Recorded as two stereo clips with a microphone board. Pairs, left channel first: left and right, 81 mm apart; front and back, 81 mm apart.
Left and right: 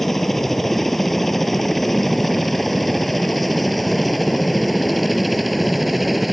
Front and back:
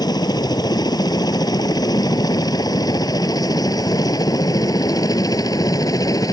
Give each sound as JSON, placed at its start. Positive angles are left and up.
{"t": 0.0, "sound": "a helicopter", "azimuth_deg": 5}